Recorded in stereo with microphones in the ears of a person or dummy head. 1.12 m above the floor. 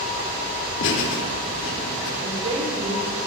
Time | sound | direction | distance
0.8 | laughter | 70° left (ahead or behind) | 3.5 m
2.2 | a woman speaking | 40° right (ahead or behind) | 4.5 m